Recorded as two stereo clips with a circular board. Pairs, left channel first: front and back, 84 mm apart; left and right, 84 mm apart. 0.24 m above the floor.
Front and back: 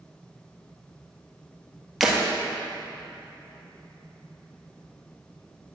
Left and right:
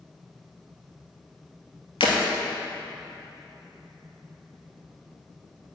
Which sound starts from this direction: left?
Breaking glass, at 2.0 s.